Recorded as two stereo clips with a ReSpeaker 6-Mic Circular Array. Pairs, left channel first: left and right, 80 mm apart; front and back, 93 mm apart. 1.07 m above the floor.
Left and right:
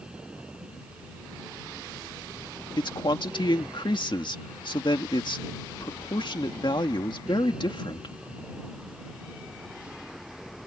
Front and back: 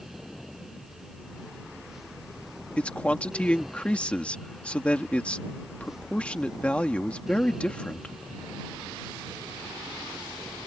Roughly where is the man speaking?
Left.